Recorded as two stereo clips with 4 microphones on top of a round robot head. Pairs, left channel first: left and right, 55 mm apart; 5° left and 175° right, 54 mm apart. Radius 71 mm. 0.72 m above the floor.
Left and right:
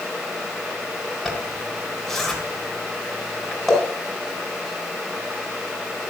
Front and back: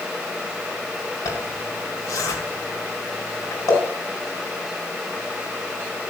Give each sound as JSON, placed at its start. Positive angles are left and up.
{"t": 1.2, "sound": "a zipper", "azimuth_deg": 5, "distance_m": 4.0}